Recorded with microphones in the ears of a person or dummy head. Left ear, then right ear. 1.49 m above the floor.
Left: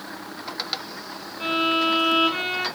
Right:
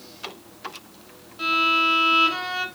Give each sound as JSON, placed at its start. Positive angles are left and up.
{"t": 1.4, "sound": "a violin", "side_deg": -60, "distance_m": 2.5}